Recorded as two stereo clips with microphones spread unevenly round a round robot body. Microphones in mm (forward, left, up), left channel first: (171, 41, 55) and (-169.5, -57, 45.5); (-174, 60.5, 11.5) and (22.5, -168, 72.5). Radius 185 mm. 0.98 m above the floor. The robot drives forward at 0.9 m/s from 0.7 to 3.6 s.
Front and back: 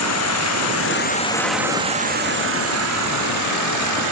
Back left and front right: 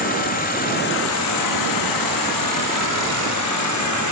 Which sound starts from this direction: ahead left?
An insect, at 0.0 s.